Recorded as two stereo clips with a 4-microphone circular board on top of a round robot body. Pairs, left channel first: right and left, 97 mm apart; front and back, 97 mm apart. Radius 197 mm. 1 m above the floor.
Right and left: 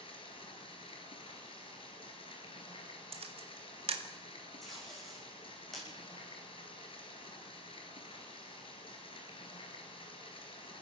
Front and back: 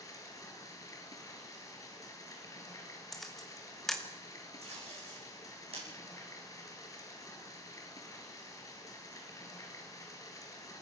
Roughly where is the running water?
Ahead right.